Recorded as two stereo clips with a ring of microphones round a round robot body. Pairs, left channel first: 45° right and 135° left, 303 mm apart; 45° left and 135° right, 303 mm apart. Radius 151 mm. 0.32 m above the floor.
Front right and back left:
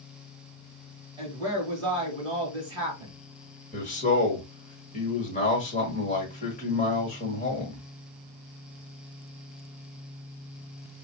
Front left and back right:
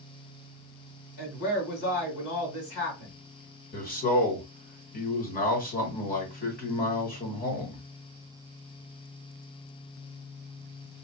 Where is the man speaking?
5° left, 1.4 m.